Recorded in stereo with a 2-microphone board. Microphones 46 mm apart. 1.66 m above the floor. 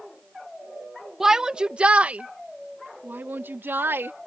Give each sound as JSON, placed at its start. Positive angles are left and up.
{"t": 1.2, "sound": "a shout", "side_deg": -10}